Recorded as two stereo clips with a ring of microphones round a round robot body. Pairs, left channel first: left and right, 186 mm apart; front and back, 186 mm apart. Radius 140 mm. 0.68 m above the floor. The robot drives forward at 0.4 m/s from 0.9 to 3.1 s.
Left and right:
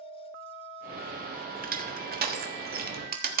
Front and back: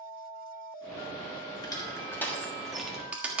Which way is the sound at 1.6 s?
65° right.